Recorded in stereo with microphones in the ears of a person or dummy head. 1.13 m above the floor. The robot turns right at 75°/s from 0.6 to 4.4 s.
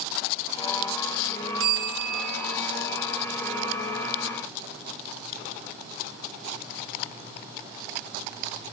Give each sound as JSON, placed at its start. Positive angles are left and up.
{"t": 1.6, "sound": "a bell", "azimuth_deg": -90, "distance_m": 6.0}